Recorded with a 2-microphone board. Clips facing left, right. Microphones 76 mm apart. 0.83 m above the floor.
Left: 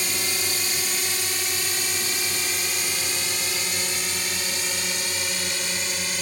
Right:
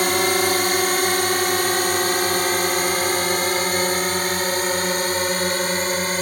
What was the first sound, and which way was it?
A drone, 55° right (ahead or behind).